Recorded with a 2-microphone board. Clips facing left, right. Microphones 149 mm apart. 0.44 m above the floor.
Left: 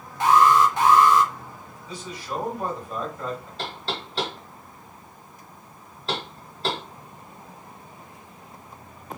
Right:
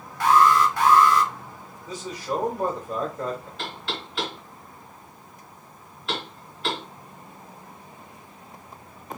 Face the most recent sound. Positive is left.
turn(degrees=35)  # may be behind; listen again after turning